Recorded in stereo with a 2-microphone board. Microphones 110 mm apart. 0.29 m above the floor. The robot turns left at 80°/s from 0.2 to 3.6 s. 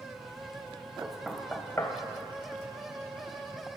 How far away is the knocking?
About 1.1 m.